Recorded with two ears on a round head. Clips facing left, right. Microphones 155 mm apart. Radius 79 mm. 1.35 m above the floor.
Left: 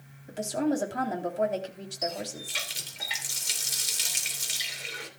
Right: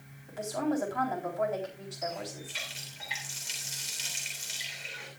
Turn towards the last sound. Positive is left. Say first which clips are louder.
# left 3 dB
turn(degrees=55)  # may be behind; listen again after turning